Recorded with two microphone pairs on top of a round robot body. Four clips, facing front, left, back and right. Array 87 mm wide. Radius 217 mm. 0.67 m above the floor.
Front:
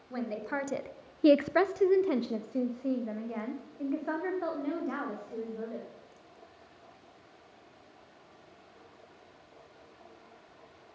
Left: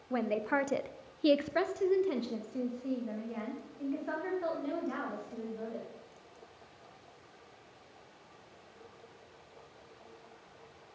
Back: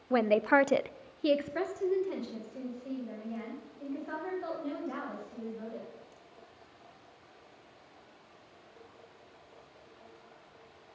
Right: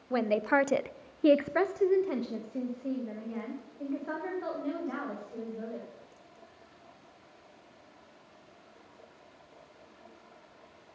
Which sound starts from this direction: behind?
A woman speaking, at 0.1 s.